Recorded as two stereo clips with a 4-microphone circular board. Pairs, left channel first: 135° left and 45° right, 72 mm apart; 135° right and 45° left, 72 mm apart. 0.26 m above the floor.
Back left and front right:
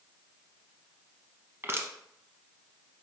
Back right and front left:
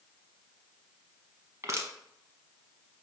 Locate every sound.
1.6 s crushing: 5° left, 0.7 m